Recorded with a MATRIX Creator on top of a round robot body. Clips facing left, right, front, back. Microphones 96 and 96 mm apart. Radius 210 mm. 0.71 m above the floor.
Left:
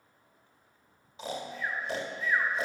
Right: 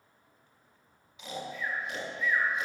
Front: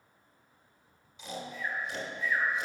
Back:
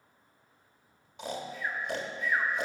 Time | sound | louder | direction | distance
1.2 | snoring | left 1 dB, back 2 dB | 145° left | 1.5 m